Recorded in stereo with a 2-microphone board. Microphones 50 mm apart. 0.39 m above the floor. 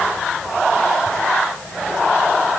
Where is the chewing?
No chewing in this recording.